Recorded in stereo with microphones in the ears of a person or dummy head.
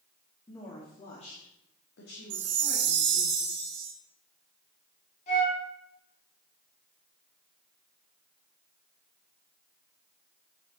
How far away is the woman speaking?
About 2 m.